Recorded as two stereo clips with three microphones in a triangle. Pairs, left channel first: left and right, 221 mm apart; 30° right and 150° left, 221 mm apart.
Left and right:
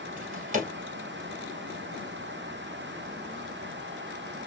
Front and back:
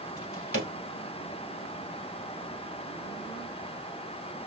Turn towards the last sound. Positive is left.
turn(degrees=-35)